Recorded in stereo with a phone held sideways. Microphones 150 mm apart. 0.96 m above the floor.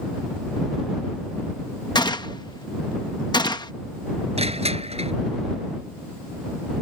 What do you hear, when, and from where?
1.9 s a gunshot: 30° left (ahead or behind)
4.4 s crushing: 45° right (ahead or behind)